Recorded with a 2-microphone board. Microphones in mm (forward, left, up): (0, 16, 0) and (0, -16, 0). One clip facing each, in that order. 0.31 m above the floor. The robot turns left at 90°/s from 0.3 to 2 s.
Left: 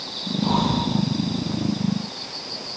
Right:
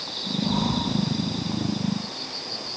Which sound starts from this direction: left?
Breathing, at 0.4 s.